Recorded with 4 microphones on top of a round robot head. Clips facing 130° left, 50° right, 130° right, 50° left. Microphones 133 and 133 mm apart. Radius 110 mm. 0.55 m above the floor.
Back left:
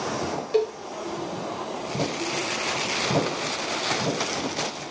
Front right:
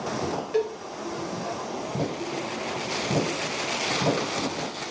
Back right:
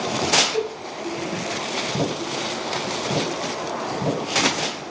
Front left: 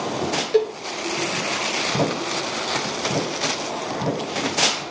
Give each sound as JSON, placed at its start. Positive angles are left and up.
{"t": 0.5, "sound": "a cowbell", "azimuth_deg": 70, "distance_m": 3.0}